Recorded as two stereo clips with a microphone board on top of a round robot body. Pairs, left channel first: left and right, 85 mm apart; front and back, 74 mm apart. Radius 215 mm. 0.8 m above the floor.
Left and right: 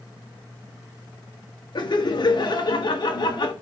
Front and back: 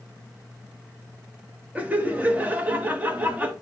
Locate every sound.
1.8 s laughter: 115° left, 1.5 m